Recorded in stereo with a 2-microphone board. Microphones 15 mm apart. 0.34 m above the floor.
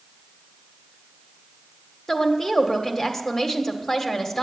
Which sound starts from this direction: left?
A woman speaking, at 2.1 s.